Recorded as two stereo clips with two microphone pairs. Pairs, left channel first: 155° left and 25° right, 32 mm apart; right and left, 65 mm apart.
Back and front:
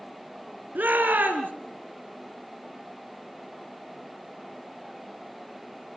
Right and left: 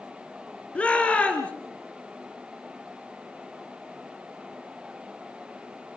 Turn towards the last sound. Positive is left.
turn(degrees=-20)